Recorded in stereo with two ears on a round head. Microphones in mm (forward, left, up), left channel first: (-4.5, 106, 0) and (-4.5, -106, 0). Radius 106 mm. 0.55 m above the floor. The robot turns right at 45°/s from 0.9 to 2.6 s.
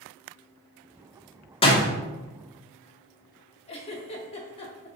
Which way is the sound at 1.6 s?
25° left (ahead or behind).